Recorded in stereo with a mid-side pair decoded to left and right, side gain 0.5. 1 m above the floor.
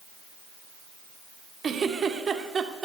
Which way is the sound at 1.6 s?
40° right.